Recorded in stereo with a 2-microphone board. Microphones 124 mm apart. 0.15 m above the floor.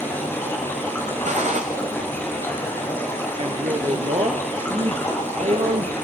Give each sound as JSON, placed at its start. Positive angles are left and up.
{"t": 0.0, "sound": "running water", "side_deg": 20, "distance_m": 6.5}
{"t": 1.2, "sound": "a gunshot", "side_deg": -70, "distance_m": 2.5}
{"t": 3.4, "sound": "a man speaking", "side_deg": -55, "distance_m": 3.0}